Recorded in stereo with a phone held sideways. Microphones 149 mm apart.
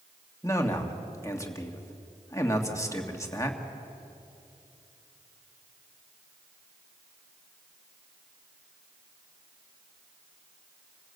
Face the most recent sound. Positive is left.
turn(degrees=20)  # may be behind; listen again after turning